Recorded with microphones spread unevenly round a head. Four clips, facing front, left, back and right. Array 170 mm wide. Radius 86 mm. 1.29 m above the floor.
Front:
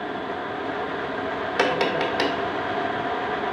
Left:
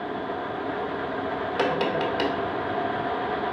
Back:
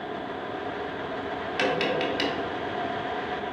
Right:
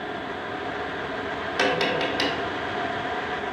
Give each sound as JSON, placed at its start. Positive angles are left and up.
{"t": 1.6, "sound": "tapping", "azimuth_deg": 15, "distance_m": 1.0}